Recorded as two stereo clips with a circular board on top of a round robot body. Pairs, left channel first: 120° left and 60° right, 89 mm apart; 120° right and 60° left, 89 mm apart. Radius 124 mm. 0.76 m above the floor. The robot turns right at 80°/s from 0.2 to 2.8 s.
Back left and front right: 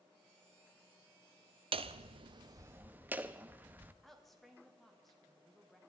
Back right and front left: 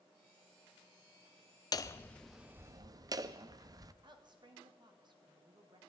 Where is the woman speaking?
35° left, 1.9 m.